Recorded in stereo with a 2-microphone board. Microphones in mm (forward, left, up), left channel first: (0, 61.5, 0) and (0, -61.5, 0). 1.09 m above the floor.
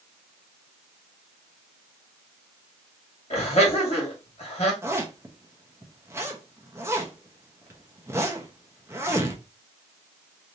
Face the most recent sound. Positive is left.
turn(degrees=-20)  # may be behind; listen again after turning